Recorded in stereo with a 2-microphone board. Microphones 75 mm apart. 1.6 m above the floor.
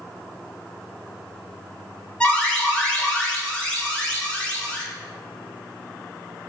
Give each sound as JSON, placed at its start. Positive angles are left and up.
{"t": 2.2, "sound": "an alarm", "side_deg": 15, "distance_m": 1.1}